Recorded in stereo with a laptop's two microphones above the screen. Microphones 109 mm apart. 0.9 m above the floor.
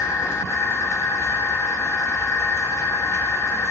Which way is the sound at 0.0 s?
25° left (ahead or behind).